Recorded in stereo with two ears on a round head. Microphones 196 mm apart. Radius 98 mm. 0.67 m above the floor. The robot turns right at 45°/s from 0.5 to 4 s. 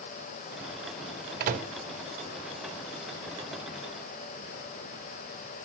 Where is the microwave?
45° right (ahead or behind), 0.8 m; by 1.7 s 30° right (ahead or behind), 0.8 m.